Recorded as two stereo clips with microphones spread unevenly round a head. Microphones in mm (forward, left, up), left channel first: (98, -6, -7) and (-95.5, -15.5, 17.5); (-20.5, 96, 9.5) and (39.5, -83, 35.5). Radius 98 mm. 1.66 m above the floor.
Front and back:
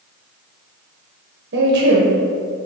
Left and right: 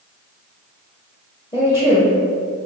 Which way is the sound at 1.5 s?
Straight behind.